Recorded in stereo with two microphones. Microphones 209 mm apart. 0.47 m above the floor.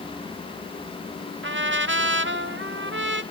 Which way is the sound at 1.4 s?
65° right (ahead or behind).